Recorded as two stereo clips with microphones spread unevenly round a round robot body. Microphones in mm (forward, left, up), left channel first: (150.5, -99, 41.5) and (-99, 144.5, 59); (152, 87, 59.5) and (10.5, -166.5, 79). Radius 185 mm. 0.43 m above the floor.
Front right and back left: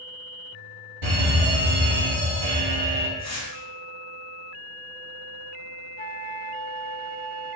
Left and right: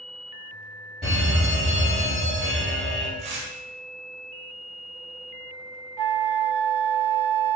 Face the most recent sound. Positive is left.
turn(degrees=-110)